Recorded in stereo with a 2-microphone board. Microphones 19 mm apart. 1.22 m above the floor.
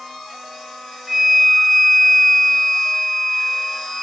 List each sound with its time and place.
1.1 s a flute: 25° right (ahead or behind), 0.5 m